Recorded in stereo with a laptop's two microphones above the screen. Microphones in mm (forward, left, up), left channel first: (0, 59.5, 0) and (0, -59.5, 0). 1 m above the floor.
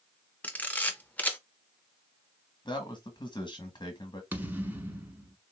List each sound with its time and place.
0.4 s a camera shutter: 15° left (ahead or behind), 0.8 m
2.6 s a man speaking: 40° left (ahead or behind), 1.2 m
4.3 s a thud: 15° right (ahead or behind), 1.2 m